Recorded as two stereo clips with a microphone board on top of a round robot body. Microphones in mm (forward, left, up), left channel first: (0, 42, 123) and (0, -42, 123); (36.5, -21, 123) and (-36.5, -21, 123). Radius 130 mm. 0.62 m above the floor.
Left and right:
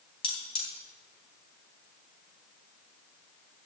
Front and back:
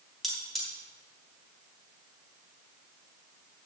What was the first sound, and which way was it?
Cutlery clinking, 90° left.